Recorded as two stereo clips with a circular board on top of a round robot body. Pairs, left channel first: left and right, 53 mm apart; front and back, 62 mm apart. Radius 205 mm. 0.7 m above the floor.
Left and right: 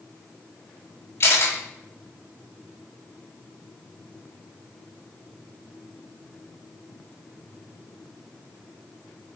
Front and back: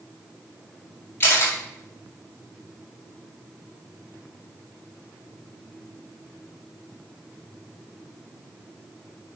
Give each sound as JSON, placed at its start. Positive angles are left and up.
{"t": 1.2, "sound": "a camera shutter", "azimuth_deg": 55, "distance_m": 5.5}